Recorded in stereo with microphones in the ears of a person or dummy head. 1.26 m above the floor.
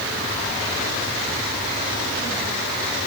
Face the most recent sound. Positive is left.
No sound to turn to.